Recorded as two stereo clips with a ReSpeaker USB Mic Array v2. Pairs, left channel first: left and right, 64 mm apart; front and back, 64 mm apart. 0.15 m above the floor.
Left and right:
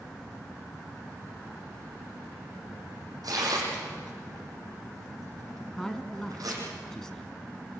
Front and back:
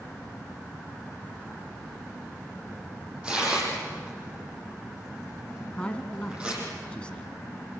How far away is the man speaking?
About 1.3 m.